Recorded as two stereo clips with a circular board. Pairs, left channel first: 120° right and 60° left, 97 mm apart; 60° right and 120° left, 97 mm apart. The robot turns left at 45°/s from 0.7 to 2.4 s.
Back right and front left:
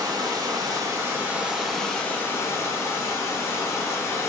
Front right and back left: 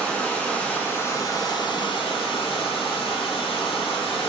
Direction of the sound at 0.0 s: 15° left.